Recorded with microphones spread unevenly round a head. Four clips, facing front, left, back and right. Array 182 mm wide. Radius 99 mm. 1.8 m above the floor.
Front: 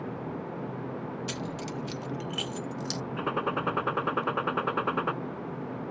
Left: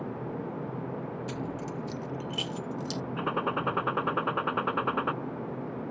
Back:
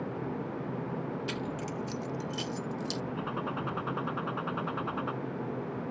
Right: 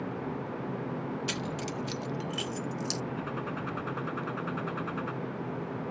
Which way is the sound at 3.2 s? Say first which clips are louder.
Left 5 dB, front 5 dB; 25° left.